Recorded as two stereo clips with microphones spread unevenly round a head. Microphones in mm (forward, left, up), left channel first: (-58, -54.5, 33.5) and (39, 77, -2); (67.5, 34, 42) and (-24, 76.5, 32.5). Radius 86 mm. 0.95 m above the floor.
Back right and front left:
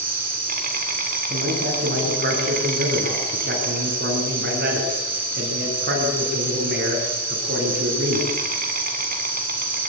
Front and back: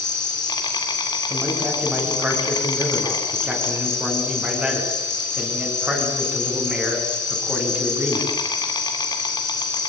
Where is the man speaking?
80° left, 9 m.